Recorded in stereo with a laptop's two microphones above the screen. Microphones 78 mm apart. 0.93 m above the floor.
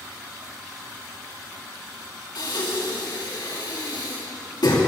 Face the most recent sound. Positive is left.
turn(degrees=70)  # may be behind; listen again after turning